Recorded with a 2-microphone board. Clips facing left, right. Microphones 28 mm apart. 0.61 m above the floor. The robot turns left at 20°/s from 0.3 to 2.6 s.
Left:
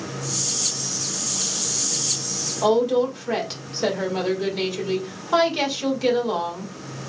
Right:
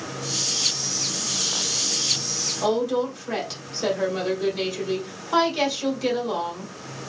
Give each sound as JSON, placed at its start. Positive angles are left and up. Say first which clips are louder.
{"t": 2.6, "sound": "a woman speaking", "louder": "left 5 dB", "side_deg": 15, "distance_m": 1.7}